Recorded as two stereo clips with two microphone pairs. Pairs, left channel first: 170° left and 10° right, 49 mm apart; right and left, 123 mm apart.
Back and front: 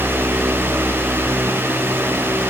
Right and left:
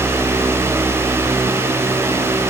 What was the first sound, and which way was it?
Only background noise.